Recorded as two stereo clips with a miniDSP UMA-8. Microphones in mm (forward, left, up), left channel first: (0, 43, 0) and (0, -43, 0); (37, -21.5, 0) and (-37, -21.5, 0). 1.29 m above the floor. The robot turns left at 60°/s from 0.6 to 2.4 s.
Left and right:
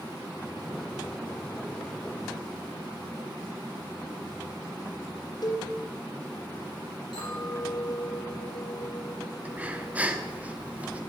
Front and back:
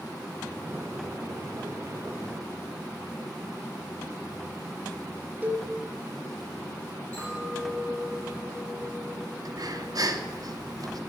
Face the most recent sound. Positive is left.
turn(degrees=-160)